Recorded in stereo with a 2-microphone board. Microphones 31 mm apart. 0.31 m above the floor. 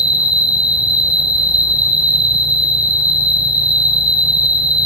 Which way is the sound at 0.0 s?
45° right (ahead or behind).